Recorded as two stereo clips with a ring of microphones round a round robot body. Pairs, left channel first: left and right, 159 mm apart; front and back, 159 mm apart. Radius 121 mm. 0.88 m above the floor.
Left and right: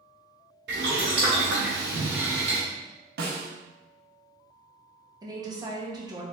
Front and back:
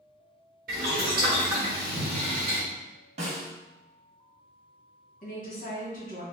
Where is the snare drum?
125° right, 0.7 m.